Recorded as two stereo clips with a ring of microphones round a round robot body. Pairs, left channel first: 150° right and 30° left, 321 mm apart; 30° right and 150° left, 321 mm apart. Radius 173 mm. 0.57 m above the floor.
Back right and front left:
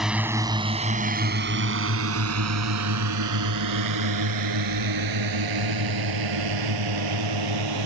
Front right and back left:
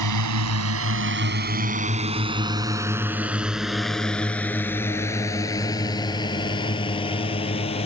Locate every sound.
0.0 s a drone: 120° left; by 7.9 s 45° left